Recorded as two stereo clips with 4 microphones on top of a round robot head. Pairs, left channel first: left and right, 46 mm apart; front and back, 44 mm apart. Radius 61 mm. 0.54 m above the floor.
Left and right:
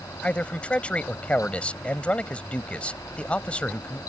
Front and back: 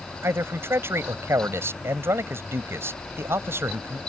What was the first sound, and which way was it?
A man speaking, 155° left.